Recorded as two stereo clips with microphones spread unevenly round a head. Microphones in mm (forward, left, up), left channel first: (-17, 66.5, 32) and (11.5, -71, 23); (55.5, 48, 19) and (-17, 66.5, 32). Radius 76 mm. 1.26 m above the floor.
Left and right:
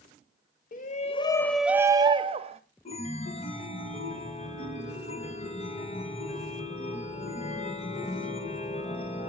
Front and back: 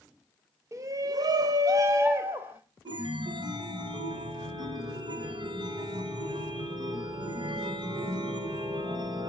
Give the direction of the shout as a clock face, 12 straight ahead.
8 o'clock.